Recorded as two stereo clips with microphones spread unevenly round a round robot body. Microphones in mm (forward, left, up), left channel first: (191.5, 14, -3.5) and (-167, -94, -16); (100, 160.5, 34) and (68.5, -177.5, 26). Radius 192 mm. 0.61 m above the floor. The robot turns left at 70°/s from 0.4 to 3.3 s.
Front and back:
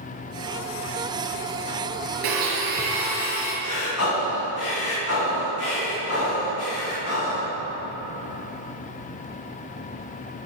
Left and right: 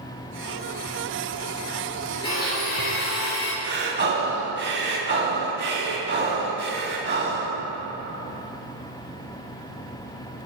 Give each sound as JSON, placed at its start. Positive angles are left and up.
{"t": 2.2, "sound": "a blender", "azimuth_deg": 165, "distance_m": 3.5}
{"t": 3.6, "sound": "breathing", "azimuth_deg": -35, "distance_m": 4.0}